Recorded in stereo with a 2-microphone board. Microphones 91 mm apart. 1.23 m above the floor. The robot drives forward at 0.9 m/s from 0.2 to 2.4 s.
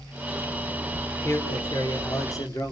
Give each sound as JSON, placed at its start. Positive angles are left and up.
{"t": 1.2, "sound": "a man speaking", "side_deg": 30, "distance_m": 5.0}